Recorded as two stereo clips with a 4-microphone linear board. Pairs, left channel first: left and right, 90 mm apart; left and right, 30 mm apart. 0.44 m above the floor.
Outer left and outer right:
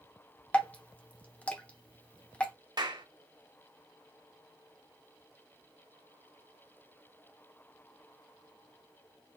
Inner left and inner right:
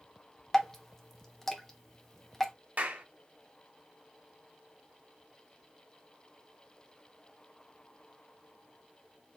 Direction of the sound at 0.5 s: 15° left (ahead or behind).